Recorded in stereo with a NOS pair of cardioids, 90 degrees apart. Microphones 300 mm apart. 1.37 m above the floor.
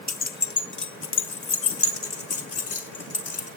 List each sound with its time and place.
0.1 s keys jangling: 30° left, 0.9 m; by 3.5 s 55° left, 3 m